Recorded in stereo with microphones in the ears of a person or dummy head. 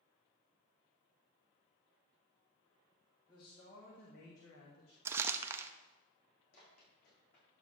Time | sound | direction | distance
3.3 | a man speaking | 25° left (ahead or behind) | 2 m
5.0 | crumpling | 15° right (ahead or behind) | 0.5 m
6.5 | running footsteps | 55° left (ahead or behind) | 5 m